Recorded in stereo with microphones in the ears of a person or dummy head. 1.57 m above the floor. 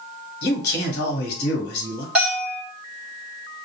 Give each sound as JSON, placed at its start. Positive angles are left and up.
{"t": 0.4, "sound": "a man speaking", "side_deg": 55, "distance_m": 1.2}
{"t": 2.1, "sound": "a bell", "side_deg": -10, "distance_m": 0.8}